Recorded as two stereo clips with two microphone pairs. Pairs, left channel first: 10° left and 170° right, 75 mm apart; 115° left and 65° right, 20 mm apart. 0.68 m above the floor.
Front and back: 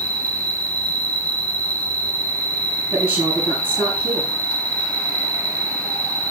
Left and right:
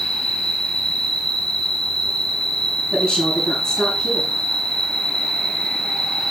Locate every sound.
0.0 s an insect: 80° left, 4.5 m
2.9 s a woman speaking: 115° left, 8 m